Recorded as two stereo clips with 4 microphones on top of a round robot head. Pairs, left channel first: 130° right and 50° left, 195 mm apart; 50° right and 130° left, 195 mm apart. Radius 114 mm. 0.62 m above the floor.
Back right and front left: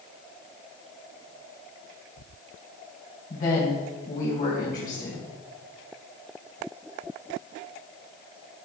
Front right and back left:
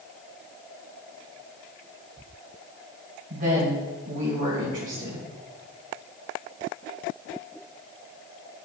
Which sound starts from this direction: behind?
A woman speaking, at 3.3 s.